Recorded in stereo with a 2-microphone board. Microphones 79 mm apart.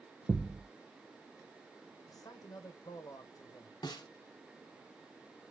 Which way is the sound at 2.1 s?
55° left (ahead or behind).